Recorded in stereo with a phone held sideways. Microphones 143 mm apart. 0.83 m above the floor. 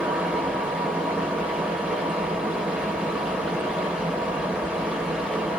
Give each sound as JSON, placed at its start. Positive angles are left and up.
{"t": 0.0, "sound": "a fan", "side_deg": -5, "distance_m": 0.9}